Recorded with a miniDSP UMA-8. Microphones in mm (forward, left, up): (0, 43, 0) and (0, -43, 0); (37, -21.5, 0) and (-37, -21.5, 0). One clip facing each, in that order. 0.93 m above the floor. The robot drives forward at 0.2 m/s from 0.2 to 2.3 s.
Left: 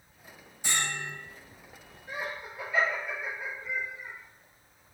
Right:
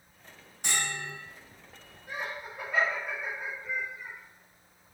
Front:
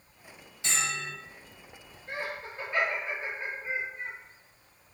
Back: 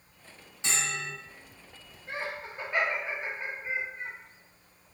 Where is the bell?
120° right, 1.9 m.